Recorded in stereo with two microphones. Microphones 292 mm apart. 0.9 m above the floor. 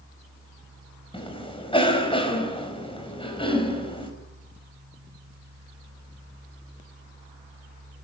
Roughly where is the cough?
Centre.